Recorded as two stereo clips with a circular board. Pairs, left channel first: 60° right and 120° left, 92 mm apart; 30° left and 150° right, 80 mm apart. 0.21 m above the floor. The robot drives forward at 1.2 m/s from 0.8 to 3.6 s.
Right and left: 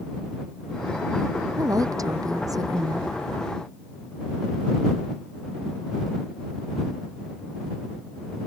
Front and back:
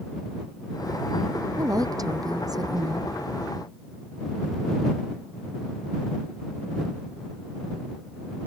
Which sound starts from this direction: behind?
A woman speaking, at 1.6 s.